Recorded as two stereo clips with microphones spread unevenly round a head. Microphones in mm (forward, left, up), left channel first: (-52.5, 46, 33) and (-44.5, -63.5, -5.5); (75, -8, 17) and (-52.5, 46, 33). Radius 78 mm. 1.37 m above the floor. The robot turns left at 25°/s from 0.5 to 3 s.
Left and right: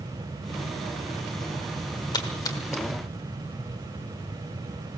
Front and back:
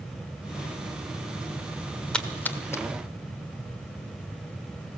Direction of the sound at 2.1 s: 65° left.